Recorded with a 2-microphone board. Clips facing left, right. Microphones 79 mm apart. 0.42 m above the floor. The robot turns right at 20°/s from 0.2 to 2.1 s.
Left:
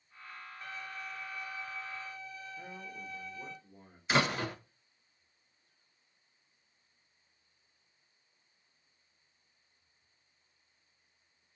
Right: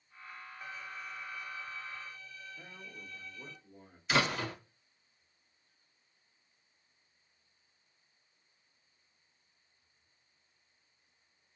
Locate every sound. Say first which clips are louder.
0.6 s a violin: left 1 dB; 10° right (ahead or behind), 0.7 m; by 3.6 s 15° left (ahead or behind), 0.7 m
2.6 s a man speaking: left 5 dB; 5° left (ahead or behind), 0.9 m
4.1 s a door slam: left 1 dB; 35° left (ahead or behind), 1.1 m